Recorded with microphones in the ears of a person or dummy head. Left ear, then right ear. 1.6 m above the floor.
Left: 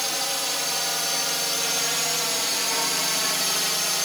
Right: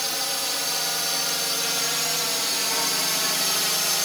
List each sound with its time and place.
0.0 s a drone: 15° left (ahead or behind); by 4.1 s 5° left (ahead or behind)